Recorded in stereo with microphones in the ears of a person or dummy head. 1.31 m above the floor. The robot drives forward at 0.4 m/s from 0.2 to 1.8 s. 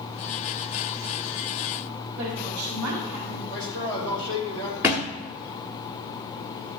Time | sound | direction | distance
2.2 | a woman speaking | 65° right (ahead or behind) | 3.5 m
3.5 | a man speaking | 65° right (ahead or behind) | 4 m
4.8 | a thud | 10° right (ahead or behind) | 1.1 m